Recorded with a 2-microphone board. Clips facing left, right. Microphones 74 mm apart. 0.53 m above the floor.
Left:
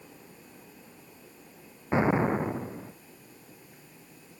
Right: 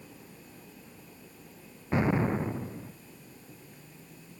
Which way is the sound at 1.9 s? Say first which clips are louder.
Left 3 dB; 25° left (ahead or behind).